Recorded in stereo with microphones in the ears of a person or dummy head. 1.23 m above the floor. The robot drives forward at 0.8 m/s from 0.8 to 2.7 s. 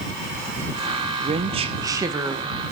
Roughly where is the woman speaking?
Right.